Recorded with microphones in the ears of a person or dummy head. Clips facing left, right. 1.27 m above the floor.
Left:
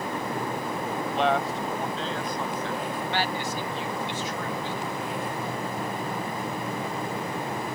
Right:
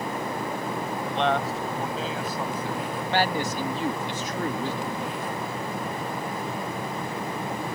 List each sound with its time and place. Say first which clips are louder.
1.1 s a man speaking: even; 5° left (ahead or behind); by 2.9 s 10° right (ahead or behind)
3.0 s a man speaking: right 7 dB; 35° right (ahead or behind)